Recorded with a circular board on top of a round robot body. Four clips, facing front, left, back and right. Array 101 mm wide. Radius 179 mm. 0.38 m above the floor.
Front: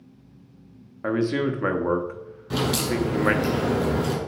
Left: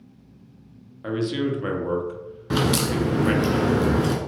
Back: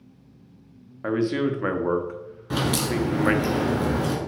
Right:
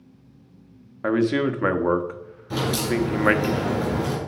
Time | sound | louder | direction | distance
1.0 | a man speaking | right 4 dB, even | 85° right | 1.1 m
2.5 | a crack | left 2 dB, even | 100° left | 1.9 m